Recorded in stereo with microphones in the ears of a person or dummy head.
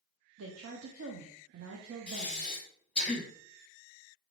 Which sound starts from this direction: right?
A woman speaking, at 0.4 s.